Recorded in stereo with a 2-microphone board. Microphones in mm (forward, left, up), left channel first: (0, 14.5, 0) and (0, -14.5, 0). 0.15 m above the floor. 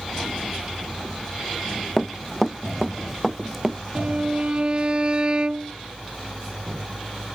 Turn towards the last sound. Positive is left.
turn(degrees=-35)  # may be behind; listen again after turning